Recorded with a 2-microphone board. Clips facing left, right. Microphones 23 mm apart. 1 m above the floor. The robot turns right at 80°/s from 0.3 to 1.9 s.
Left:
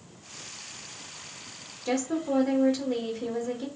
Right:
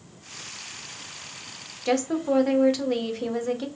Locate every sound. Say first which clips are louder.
1.9 s a woman speaking: right 4 dB; 35° right (ahead or behind), 1.0 m